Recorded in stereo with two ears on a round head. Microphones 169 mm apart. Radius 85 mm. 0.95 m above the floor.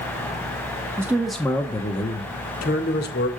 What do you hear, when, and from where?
1.0 s a man speaking: 15° right (ahead or behind), 0.9 m; by 3.3 s 60° left (ahead or behind), 1.5 m